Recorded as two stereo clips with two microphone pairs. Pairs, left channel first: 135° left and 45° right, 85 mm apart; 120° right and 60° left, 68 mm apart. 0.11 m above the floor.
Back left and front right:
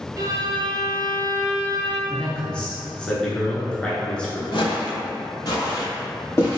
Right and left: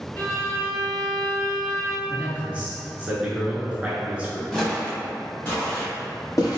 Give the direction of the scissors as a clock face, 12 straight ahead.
No scissors in this recording.